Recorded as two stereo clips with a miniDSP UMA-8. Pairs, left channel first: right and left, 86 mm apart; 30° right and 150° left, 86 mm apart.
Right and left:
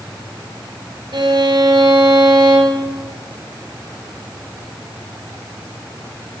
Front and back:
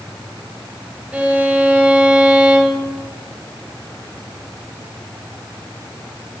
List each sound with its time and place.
1.1 s a violin: 75° left, 2 m